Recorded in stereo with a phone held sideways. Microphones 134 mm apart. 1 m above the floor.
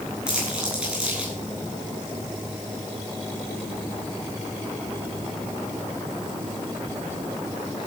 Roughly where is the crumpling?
Centre.